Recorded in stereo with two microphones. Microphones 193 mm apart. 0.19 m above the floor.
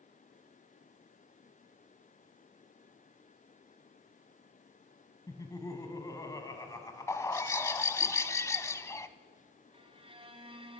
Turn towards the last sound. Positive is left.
turn(degrees=-30)  # may be behind; listen again after turning